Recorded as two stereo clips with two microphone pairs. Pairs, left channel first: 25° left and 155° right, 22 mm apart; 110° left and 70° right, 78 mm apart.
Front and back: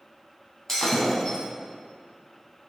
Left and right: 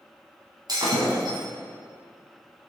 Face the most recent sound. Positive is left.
turn(degrees=-40)